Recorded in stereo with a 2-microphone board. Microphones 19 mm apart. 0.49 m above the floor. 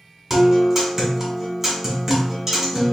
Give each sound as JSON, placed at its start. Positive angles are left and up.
{"t": 0.3, "sound": "a guitar", "side_deg": -25, "distance_m": 1.6}